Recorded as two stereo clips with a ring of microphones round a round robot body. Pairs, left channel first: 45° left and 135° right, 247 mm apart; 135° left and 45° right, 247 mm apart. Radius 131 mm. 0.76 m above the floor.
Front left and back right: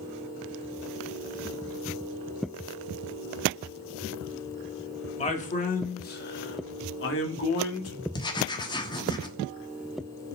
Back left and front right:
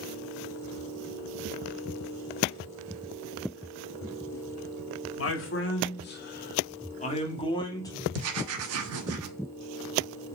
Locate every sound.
5.2 s a man speaking: 105° left, 2 m; by 8.0 s 55° left, 2 m
8.1 s writing: 25° right, 1.2 m